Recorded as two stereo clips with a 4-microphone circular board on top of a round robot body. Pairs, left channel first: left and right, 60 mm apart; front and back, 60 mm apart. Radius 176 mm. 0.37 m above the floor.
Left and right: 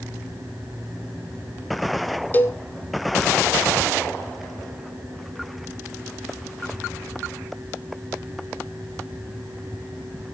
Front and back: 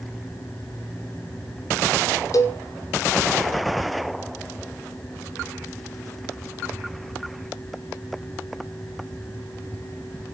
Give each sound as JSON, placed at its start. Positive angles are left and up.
{"t": 2.3, "sound": "a cowbell", "azimuth_deg": 30, "distance_m": 2.5}